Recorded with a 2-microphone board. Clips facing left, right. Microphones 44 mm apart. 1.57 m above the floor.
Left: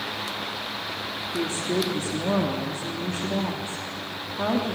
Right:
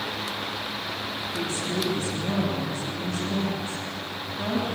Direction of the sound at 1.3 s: 50° left (ahead or behind).